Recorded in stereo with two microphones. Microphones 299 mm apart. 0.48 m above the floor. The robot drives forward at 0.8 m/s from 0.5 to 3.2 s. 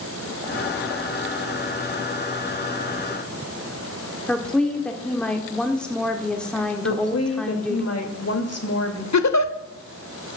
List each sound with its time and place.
4.3 s a woman speaking: 5° left (ahead or behind), 1.4 m
6.8 s a woman speaking: 55° left (ahead or behind), 2 m
9.1 s a giggle: 65° left (ahead or behind), 0.9 m